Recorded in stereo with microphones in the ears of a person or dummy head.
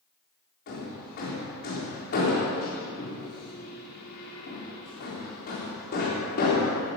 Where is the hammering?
50° left (ahead or behind), 3.5 m.